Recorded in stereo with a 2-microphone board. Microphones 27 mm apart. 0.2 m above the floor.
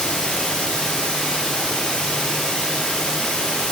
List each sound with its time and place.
0.0 s running water: 20° left (ahead or behind), 3.5 m